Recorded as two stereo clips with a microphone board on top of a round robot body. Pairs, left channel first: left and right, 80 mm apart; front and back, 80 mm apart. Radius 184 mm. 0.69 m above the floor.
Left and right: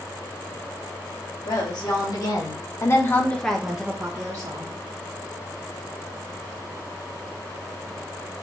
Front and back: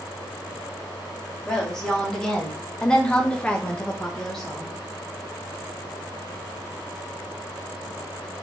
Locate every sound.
1.4 s a woman speaking: 85° left, 2.5 m; by 4.8 s 80° right, 1.5 m